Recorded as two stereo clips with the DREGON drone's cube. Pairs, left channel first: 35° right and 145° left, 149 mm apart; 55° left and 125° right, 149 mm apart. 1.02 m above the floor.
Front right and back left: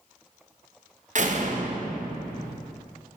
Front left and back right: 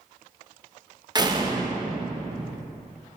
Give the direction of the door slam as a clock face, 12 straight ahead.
6 o'clock.